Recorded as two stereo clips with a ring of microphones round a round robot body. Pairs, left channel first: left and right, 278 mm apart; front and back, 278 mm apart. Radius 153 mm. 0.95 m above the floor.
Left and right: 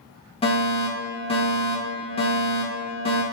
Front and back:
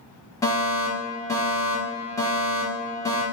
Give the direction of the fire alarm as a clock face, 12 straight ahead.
10 o'clock.